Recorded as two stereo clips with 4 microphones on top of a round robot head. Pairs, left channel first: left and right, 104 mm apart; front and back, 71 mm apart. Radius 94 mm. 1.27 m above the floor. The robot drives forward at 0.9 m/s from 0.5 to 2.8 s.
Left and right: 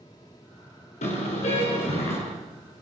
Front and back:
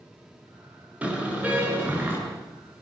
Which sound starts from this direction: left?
A car horn, at 1.0 s.